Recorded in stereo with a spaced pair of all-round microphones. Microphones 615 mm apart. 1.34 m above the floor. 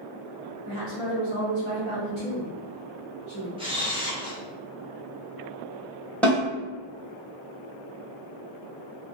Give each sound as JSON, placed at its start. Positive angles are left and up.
{"t": 0.7, "sound": "a woman speaking", "side_deg": -50, "distance_m": 0.9}
{"t": 3.6, "sound": "a camera shutter", "side_deg": -10, "distance_m": 0.6}
{"t": 6.2, "sound": "a snare drum", "side_deg": 0, "distance_m": 1.1}